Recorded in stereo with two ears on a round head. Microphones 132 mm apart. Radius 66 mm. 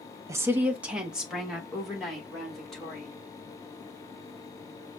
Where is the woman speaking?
20° right (ahead or behind), 0.5 m; by 3.1 s centre (ahead or behind), 2.5 m.